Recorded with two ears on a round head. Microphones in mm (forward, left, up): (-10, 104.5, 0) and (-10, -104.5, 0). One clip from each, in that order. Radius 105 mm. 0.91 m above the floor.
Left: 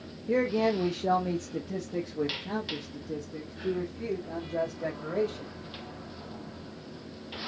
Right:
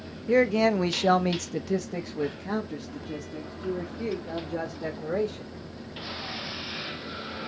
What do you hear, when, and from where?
0.3 s a man speaking: 25° right (ahead or behind), 0.6 m